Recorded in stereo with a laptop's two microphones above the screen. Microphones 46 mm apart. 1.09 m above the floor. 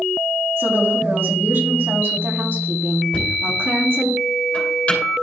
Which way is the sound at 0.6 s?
55° right (ahead or behind).